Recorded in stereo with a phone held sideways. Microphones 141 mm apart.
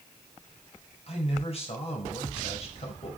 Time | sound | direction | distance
1.1 | a man speaking | 45° left (ahead or behind) | 4.5 m